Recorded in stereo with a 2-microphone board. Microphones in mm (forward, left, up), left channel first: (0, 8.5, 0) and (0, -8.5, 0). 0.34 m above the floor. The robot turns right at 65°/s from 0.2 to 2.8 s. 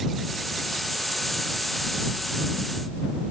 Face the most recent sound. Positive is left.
No sound to turn to.